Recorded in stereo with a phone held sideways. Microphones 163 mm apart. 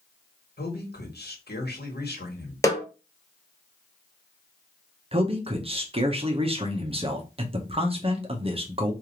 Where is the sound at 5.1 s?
35° right (ahead or behind), 0.8 m.